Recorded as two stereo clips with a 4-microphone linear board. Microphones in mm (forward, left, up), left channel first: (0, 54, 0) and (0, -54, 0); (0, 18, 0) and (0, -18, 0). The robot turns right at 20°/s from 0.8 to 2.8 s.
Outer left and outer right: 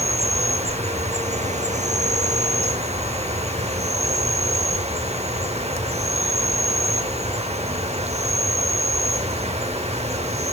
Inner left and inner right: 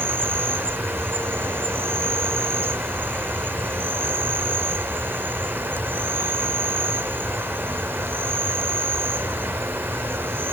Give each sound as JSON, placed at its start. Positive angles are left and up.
{"t": 0.0, "sound": "an insect", "azimuth_deg": -110, "distance_m": 0.8}